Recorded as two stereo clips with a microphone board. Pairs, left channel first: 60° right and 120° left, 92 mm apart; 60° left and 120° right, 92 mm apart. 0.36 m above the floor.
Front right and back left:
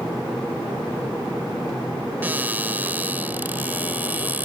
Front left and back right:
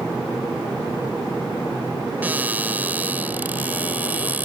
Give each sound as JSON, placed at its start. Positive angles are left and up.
{"t": 2.2, "sound": "a cupboard door", "azimuth_deg": 180}